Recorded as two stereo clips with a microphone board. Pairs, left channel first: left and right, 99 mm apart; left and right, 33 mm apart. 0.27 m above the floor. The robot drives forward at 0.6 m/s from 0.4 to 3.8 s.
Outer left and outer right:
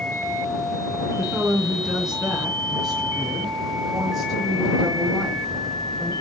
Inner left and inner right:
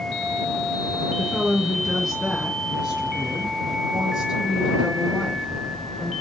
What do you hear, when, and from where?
1.2 s a woman speaking: 5° right (ahead or behind), 2.5 m; by 6.1 s centre (ahead or behind), 4 m